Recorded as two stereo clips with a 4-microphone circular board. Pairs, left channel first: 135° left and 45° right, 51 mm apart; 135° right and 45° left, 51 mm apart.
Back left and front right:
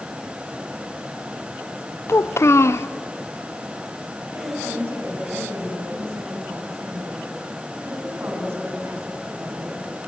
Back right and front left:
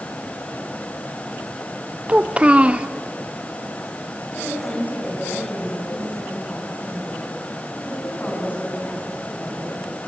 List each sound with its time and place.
2.1 s a child speaking: 110° left, 0.7 m
4.3 s a woman speaking: 80° right, 9 m